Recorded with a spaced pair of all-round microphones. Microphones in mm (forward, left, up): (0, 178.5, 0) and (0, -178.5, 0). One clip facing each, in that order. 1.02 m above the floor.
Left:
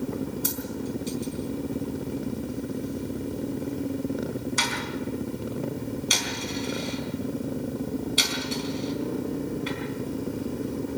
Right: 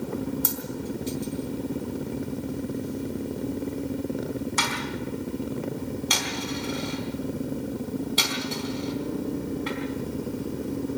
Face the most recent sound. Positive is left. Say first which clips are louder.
# left 1 dB
turn(degrees=-80)